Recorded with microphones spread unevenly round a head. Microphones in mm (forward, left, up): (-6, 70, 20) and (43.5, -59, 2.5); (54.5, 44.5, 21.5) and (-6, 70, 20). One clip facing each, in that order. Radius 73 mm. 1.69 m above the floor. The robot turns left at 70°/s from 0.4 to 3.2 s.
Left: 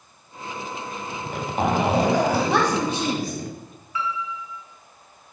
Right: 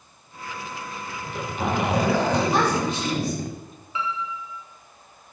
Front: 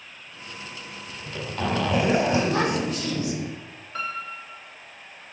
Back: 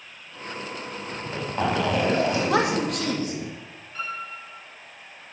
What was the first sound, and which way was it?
A zipper, 120° left.